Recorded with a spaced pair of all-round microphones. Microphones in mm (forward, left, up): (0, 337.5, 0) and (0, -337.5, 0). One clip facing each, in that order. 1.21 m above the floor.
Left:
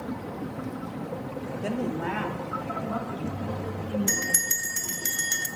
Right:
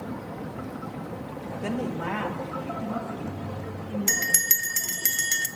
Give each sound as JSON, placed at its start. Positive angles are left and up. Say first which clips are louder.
{"t": 1.6, "sound": "a woman speaking", "louder": "even", "side_deg": -35, "distance_m": 0.6}
{"t": 4.1, "sound": "a bell", "louder": "left 2 dB", "side_deg": -60, "distance_m": 0.6}